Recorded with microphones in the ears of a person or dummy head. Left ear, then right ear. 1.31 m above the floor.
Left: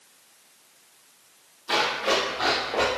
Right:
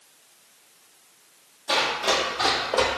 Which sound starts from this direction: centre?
Running footsteps, at 1.7 s.